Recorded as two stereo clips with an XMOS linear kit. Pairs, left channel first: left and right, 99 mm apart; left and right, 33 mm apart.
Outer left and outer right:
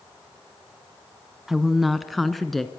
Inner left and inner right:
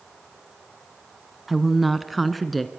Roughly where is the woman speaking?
Centre.